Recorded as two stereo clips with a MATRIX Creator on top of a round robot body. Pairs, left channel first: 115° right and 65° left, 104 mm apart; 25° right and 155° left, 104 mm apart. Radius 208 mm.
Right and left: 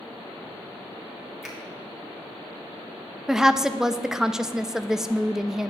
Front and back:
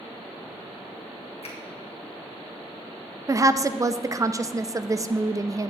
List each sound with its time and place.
1.4 s a finger snap: 20° right, 1.6 m
3.3 s a woman speaking: 150° left, 0.6 m